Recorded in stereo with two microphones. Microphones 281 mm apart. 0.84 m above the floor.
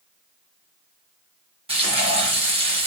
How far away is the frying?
About 1.1 m.